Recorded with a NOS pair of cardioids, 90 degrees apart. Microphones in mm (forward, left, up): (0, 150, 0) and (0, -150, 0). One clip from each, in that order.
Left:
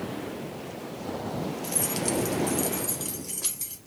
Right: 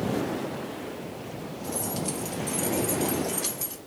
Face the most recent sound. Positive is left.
turn(degrees=0)